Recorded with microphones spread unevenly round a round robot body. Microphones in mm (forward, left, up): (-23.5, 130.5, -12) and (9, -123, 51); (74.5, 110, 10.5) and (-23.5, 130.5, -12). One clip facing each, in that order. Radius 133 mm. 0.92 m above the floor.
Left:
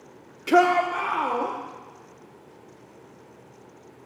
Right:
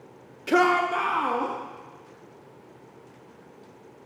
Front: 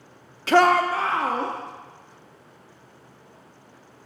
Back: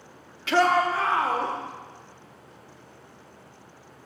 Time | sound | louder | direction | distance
0.5 | a shout | left 2 dB, front 4 dB | 40° left | 0.6 m